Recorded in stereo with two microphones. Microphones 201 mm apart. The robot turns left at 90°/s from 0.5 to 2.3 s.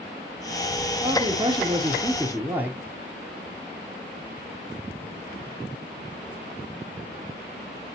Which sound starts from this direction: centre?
A man speaking, at 1.0 s.